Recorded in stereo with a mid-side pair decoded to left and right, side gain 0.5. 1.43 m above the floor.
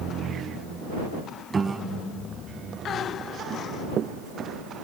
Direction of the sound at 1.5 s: 30° right.